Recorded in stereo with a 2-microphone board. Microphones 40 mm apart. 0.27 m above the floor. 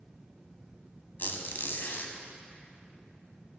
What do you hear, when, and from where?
1.2 s a squeak: 60° left (ahead or behind), 0.7 m